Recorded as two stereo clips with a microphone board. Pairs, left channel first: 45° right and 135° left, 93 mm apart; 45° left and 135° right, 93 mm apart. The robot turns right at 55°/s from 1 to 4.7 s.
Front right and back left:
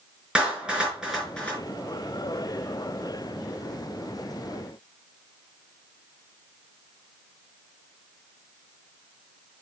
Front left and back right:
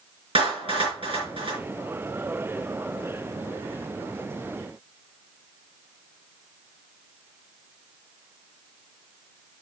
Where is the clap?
145° right, 4.5 m; by 1.6 s 115° right, 4.5 m.